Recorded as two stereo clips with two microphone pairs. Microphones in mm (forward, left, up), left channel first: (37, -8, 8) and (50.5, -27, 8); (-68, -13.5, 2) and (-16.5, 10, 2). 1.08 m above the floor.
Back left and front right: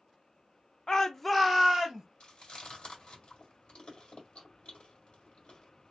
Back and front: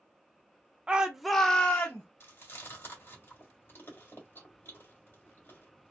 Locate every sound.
0.9 s a shout: 80° left, 0.6 m; by 2.0 s 110° right, 0.8 m
2.2 s chewing: 165° left, 1.7 m